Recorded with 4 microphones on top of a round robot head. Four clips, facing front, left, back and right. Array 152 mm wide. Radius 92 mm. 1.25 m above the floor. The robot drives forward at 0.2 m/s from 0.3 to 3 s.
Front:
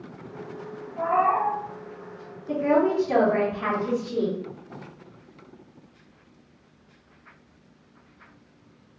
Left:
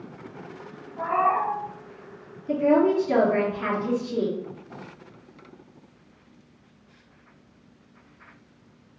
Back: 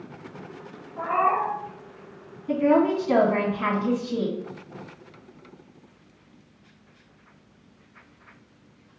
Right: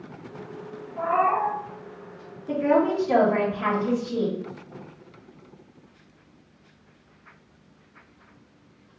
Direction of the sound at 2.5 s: 155° right.